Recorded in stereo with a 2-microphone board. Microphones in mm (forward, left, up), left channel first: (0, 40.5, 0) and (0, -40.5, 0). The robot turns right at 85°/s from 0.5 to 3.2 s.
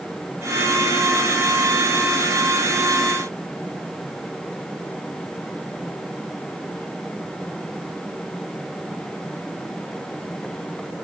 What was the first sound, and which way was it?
Only background noise.